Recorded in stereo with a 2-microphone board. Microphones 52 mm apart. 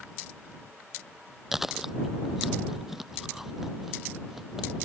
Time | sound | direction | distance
1.5 | chewing | 5° right (ahead or behind) | ?